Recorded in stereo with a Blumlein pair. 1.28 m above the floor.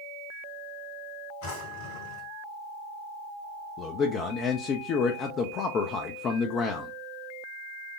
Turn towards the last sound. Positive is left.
turn(degrees=30)